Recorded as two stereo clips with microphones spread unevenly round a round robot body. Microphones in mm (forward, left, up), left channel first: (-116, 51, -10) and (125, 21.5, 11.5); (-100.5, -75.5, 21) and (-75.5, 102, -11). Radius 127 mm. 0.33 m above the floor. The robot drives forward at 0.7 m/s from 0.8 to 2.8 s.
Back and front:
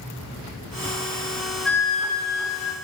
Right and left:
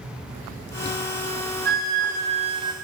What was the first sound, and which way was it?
A flute, 90° left.